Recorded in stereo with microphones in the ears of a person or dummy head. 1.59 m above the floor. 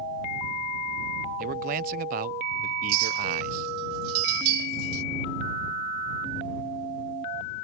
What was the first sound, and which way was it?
A man speaking, 45° right (ahead or behind).